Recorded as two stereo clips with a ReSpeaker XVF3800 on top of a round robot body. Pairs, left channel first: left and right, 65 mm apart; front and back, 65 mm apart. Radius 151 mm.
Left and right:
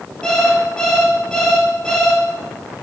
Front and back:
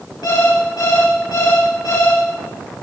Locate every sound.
0.2 s an alarm clock: 10° left, 8 m